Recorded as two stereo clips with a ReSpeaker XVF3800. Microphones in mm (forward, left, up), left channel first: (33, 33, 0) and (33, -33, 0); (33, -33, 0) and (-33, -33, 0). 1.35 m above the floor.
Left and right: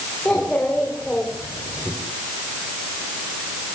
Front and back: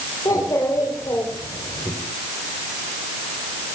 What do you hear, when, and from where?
0.2 s a child speaking: 15° left, 3 m